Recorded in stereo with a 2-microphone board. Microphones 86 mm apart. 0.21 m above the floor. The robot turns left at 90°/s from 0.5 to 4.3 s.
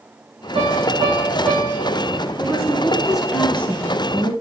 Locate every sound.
0.6 s a piano: 90° right, 3.5 m; by 2.0 s 140° left, 3.5 m
2.4 s a woman speaking: 20° right (ahead or behind), 1.4 m; by 4.3 s 20° left (ahead or behind), 1.4 m